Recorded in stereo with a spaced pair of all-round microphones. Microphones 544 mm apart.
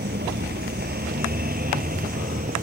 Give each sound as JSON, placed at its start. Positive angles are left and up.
{"t": 0.0, "sound": "a vehicle", "side_deg": -20}